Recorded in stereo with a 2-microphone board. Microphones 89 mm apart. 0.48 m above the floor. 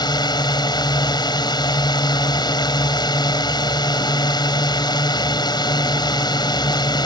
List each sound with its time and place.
0.0 s a drone: 60° left (ahead or behind)